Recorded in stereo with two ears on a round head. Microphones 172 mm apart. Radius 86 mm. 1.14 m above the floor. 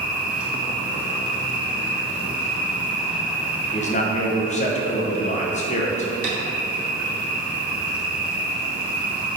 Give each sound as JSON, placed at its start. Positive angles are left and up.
{"t": 0.0, "sound": "an insect", "side_deg": -5, "distance_m": 1.4}
{"t": 3.7, "sound": "a man speaking", "side_deg": 35, "distance_m": 0.9}
{"t": 6.2, "sound": "tapping", "side_deg": -50, "distance_m": 2.0}